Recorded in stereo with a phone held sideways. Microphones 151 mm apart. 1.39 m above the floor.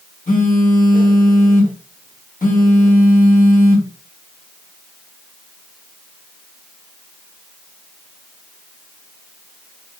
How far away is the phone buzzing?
About 3 m.